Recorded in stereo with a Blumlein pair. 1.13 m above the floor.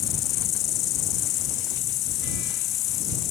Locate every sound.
0.0 s an insect: 35° left